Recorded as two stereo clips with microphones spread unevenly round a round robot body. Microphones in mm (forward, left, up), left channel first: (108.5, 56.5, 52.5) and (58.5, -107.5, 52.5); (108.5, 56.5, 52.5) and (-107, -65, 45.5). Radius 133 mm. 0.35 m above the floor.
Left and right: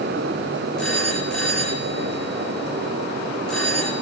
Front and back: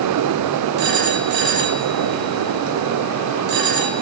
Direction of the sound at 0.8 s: 160° left.